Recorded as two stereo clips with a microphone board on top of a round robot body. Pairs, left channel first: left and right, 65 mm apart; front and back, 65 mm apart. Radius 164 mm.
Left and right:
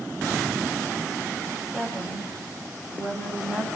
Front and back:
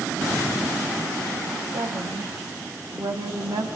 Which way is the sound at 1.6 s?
175° right.